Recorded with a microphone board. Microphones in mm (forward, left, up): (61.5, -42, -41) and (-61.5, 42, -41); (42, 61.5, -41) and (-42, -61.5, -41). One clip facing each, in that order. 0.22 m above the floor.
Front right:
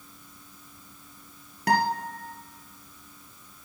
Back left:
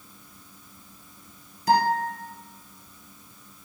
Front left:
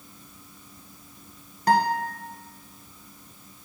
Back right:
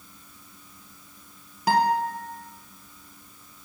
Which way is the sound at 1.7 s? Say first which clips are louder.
Back left 3 dB, even; 40° right.